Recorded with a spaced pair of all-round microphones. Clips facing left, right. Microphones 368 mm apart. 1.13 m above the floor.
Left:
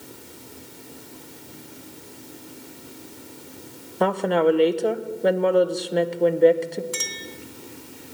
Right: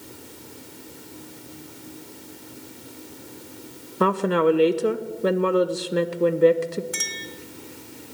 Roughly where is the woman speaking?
Centre.